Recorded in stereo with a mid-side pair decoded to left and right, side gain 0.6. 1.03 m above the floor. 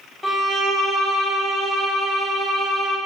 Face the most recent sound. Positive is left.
turn(degrees=15)